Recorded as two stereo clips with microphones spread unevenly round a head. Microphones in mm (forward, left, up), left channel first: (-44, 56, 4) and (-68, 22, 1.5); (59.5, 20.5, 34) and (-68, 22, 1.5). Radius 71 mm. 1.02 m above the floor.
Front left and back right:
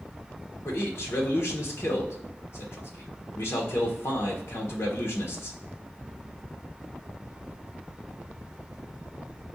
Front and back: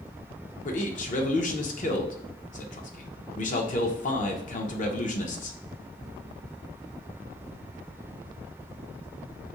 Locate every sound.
0.7 s a man speaking: 30° left, 0.9 m